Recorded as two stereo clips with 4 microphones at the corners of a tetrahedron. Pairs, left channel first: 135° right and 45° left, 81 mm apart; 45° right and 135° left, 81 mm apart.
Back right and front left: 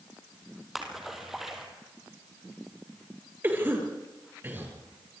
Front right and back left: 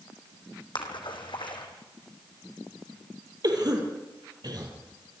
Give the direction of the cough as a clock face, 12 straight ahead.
8 o'clock.